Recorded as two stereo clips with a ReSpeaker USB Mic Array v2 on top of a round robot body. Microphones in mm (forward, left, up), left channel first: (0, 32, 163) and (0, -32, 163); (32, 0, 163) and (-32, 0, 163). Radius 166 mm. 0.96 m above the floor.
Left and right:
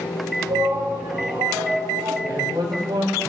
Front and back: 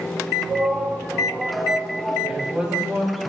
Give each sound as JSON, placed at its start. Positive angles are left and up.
{"t": 0.5, "sound": "a shout", "azimuth_deg": -105, "distance_m": 7.5}
{"t": 2.2, "sound": "a man speaking", "azimuth_deg": -100, "distance_m": 9.0}